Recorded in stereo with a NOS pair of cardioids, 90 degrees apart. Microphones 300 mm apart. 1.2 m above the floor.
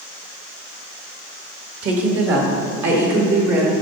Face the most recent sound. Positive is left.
turn(degrees=-70)